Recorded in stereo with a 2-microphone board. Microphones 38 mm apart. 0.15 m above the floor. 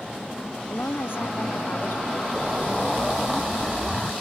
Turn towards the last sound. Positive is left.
turn(degrees=5)  # may be behind; listen again after turning